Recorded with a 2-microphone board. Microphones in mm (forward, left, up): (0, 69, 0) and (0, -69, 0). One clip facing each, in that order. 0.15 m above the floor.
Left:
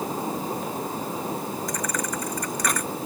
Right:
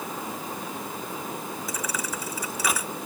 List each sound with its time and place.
1.7 s a thud: 5° right (ahead or behind)